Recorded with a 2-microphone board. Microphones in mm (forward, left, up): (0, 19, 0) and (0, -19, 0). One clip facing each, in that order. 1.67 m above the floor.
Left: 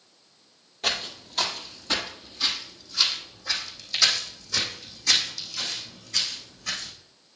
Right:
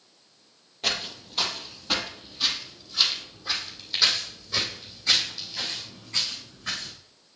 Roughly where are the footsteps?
Centre.